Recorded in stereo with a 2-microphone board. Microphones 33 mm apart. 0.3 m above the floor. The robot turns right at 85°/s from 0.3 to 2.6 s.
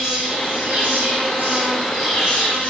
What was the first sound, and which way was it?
An insect, 155° right.